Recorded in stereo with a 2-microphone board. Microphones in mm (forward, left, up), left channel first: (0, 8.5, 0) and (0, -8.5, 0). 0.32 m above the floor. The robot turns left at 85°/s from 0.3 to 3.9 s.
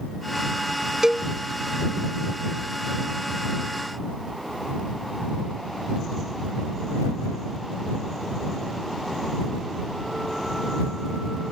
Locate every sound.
1.0 s a cowbell: 35° right (ahead or behind); by 1.3 s 55° right (ahead or behind)